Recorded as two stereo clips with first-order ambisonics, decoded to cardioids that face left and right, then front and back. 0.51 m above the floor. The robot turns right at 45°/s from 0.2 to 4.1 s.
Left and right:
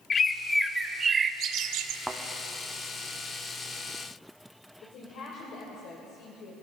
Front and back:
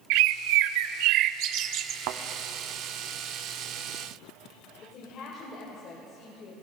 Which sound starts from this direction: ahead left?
A woman speaking, at 4.8 s.